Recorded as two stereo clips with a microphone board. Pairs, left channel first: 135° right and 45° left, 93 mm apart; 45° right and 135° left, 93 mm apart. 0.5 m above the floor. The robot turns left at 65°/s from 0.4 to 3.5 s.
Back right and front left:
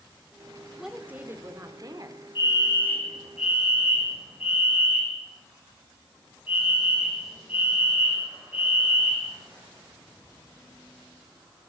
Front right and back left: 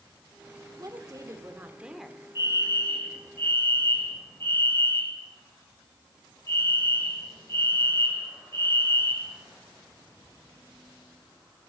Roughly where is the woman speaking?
Behind left.